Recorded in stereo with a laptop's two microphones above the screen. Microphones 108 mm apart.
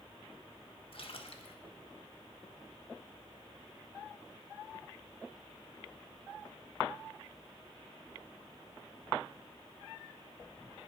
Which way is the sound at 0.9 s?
60° left (ahead or behind).